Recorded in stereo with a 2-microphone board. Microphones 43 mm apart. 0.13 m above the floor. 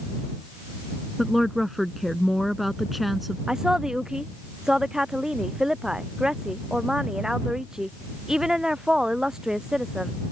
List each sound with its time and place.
1.2 s a woman speaking: centre (ahead or behind)
3.5 s a woman speaking: 15° right (ahead or behind)